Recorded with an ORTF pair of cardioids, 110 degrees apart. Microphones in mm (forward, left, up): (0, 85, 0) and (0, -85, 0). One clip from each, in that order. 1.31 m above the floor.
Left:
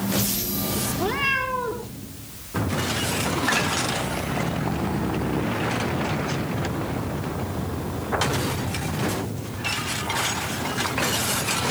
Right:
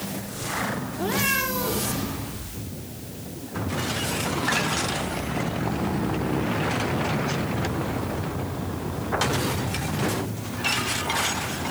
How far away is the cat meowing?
About 7.5 m.